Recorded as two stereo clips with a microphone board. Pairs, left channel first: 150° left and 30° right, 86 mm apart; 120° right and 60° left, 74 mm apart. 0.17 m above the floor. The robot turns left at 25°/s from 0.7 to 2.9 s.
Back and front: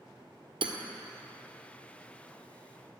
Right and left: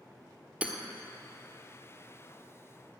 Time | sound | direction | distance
0.6 | hammering | 10° right | 1.4 m